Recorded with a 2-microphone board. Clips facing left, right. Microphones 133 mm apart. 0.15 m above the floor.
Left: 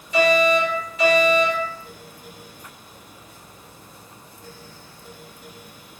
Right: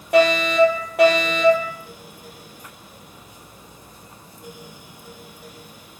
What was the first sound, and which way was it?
A fire alarm, 65° right (ahead or behind).